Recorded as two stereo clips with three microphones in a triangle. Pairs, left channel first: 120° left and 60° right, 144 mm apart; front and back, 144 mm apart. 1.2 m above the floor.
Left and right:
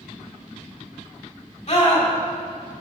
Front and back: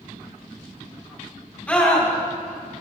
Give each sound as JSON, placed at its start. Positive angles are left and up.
{"t": 1.7, "sound": "a scream", "azimuth_deg": 80, "distance_m": 3.5}